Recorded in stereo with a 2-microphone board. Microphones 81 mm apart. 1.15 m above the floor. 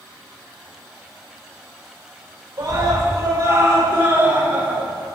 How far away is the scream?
About 3.5 m.